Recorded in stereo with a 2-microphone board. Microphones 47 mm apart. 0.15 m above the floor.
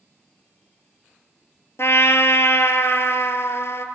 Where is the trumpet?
70° left (ahead or behind), 0.7 m.